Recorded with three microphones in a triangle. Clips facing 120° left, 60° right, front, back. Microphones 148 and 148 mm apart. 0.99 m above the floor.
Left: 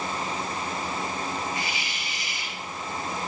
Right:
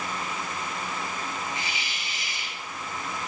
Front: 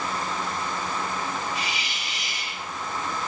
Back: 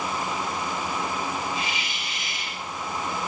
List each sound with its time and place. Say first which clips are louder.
1.6 s a hiss: left 3 dB, back 1 dB; 5° left, 5.5 m